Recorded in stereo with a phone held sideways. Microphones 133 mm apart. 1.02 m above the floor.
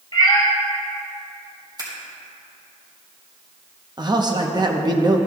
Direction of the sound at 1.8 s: 35° right (ahead or behind).